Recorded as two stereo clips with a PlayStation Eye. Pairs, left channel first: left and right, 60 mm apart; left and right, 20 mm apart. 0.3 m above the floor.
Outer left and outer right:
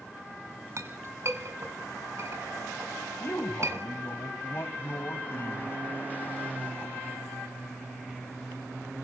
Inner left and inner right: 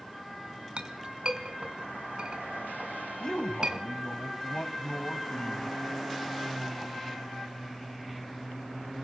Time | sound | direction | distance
0.8 | a clink | 50° right (ahead or behind) | 1.8 m
3.2 | a man speaking | 40° left (ahead or behind) | 2.5 m